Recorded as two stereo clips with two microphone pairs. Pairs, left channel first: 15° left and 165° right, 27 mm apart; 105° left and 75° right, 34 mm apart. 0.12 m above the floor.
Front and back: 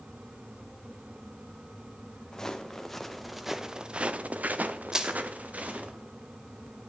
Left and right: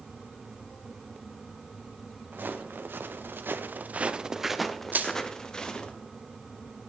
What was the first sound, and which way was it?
Footsteps, 55° right.